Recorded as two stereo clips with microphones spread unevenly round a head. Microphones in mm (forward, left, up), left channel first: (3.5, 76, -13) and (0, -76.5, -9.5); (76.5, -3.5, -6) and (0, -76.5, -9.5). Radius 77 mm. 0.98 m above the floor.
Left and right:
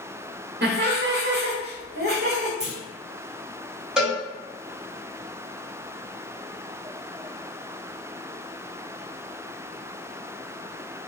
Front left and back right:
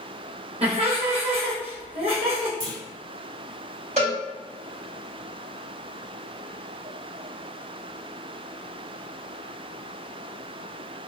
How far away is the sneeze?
I don't hear a sneeze.